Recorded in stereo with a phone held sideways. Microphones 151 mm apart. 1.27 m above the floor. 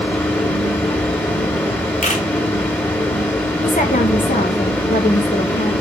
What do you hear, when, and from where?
0.0 s a fan: 10° left (ahead or behind), 2.5 m
2.0 s a camera shutter: 55° left (ahead or behind), 1.8 m
3.6 s a woman speaking: 60° left (ahead or behind), 1.7 m